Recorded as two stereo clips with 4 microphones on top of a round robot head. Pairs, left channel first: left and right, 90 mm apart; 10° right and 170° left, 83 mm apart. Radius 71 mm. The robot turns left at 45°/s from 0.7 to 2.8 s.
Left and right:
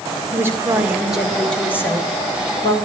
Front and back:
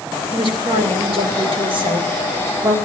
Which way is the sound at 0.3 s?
155° right.